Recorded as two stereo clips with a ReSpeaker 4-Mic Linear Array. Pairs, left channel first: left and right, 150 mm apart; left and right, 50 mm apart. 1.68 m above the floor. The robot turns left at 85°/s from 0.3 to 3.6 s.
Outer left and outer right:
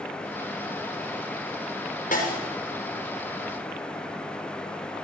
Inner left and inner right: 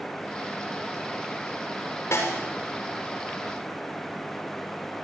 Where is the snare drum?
65° left (ahead or behind), 6 m; by 2.4 s 90° left, 6 m.